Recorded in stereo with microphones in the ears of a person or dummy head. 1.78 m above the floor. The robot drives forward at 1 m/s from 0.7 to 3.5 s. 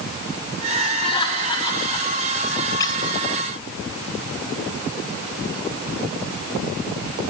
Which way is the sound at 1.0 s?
30° left (ahead or behind).